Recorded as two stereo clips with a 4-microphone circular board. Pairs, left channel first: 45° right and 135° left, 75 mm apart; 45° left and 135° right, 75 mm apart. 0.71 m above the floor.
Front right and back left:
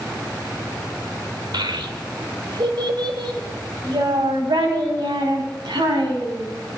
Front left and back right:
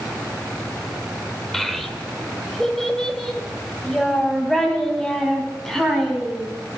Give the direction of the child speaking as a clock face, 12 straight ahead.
8 o'clock.